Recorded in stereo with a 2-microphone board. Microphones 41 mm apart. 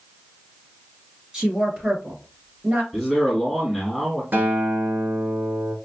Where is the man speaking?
5° right (ahead or behind), 1.8 m.